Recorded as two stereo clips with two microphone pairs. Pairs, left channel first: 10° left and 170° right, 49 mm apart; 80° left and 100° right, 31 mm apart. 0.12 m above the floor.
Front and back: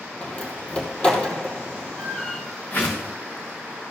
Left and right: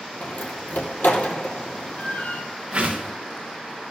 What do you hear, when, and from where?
0.2 s a door slam: 80° left, 2 m
2.7 s a whoosh: 40° right, 3 m